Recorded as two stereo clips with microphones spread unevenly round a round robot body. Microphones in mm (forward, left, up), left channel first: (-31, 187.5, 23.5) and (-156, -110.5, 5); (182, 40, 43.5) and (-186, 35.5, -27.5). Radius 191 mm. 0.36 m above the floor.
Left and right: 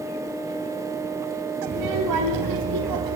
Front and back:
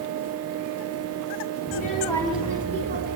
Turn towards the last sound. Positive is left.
turn(degrees=-120)